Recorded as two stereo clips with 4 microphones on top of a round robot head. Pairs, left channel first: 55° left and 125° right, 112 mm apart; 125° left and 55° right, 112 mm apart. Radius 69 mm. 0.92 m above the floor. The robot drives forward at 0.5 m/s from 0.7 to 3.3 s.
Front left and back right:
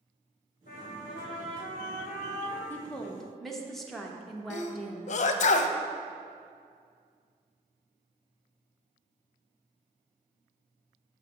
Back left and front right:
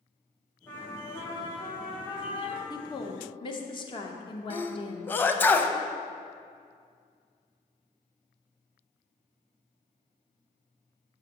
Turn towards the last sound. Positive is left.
turn(degrees=50)